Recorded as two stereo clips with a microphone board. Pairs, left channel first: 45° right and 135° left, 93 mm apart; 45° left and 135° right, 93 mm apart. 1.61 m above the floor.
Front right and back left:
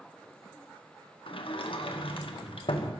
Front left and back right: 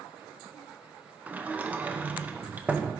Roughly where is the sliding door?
Ahead right.